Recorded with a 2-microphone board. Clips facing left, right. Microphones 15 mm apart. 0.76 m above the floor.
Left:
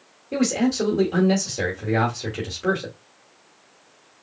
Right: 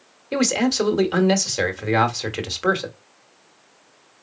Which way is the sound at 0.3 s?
50° right (ahead or behind).